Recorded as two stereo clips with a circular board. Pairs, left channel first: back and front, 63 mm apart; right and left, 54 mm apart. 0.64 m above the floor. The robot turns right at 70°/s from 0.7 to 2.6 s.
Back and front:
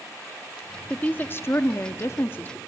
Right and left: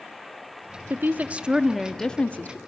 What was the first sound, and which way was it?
A woman speaking, 115° left.